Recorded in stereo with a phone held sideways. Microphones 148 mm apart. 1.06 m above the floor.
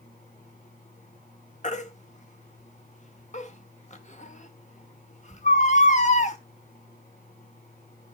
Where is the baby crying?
55° left (ahead or behind), 1.2 m.